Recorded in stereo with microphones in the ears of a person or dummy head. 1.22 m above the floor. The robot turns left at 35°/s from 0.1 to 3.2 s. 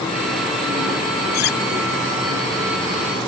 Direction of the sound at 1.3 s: 50° left (ahead or behind).